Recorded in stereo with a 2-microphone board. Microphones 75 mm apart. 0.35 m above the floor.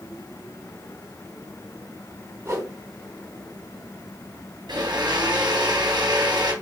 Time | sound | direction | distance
2.5 | a whoosh | 35° right (ahead or behind) | 4 m
4.7 | a blender | 65° right (ahead or behind) | 3 m